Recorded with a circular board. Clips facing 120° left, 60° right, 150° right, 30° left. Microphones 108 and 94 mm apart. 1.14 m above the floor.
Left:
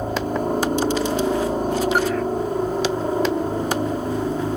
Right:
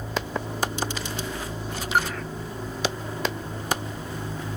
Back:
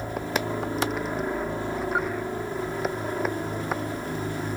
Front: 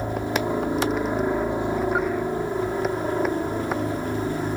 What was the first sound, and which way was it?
A helicopter, 100° left.